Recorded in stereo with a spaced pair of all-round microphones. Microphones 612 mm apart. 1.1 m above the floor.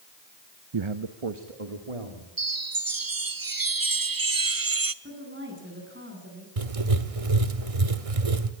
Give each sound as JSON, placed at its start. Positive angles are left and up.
{"t": 0.7, "sound": "a man speaking", "side_deg": -45, "distance_m": 0.6}
{"t": 2.4, "sound": "a chime", "side_deg": -35, "distance_m": 0.7}
{"t": 5.0, "sound": "a woman speaking", "side_deg": -20, "distance_m": 8.5}
{"t": 6.6, "sound": "writing", "side_deg": -65, "distance_m": 1.1}